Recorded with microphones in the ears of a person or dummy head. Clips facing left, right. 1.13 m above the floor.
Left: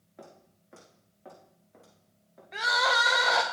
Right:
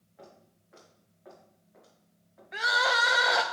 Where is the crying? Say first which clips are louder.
Left 1 dB; 5° right (ahead or behind), 0.7 m.